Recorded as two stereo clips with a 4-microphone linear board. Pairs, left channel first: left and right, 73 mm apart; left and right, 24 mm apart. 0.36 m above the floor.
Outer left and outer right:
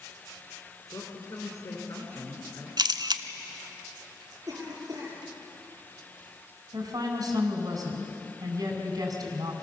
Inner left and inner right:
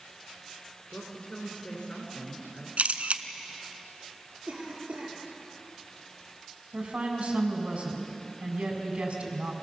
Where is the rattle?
No rattle in this recording.